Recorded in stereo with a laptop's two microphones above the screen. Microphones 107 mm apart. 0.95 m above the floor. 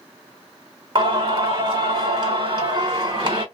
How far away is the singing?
About 1.5 m.